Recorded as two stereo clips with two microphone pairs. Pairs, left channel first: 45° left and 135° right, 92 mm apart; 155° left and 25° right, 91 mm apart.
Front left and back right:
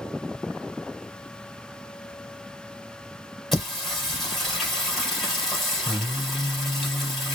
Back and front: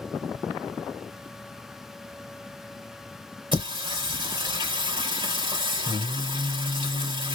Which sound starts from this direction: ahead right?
Singing, at 3.5 s.